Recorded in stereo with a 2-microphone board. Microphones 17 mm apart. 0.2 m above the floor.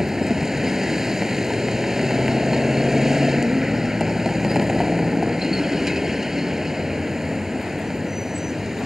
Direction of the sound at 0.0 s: 20° right (ahead or behind).